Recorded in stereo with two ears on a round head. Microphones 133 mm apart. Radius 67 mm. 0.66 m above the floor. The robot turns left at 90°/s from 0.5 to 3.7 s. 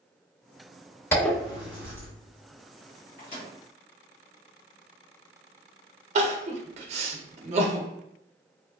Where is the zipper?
15° left (ahead or behind), 1.2 m; by 2.1 s 20° right (ahead or behind), 1.2 m.